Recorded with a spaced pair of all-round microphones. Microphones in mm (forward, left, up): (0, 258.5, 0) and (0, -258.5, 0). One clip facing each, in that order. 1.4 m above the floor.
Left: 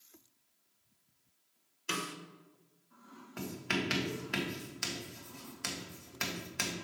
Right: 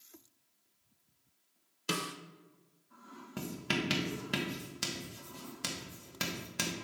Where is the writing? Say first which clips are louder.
Even; 55° right (ahead or behind), 1.3 m.